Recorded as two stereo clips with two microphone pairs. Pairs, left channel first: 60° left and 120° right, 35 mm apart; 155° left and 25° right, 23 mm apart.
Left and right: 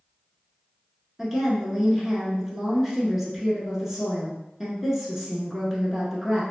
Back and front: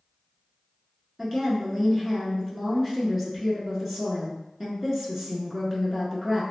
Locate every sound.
1.2 s a woman speaking: 65° right, 1.2 m